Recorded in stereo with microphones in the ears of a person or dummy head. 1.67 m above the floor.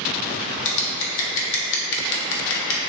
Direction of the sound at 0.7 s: 65° left (ahead or behind).